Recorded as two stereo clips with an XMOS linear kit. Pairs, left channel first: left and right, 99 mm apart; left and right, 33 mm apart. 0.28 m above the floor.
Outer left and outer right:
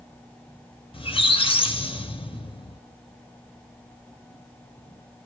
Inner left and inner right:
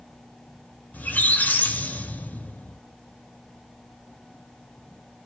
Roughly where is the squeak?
Left.